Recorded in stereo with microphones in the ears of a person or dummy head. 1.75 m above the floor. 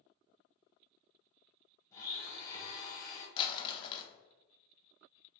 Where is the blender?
25° left (ahead or behind), 1.1 m.